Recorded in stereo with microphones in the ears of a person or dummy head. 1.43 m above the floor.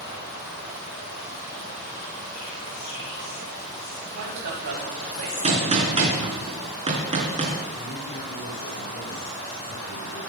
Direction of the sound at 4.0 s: 80° right.